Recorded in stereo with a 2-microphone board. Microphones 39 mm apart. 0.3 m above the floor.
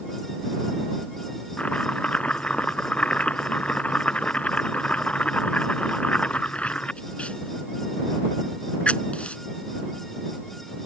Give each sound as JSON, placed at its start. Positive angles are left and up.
{"t": 1.6, "sound": "chopping", "side_deg": 30}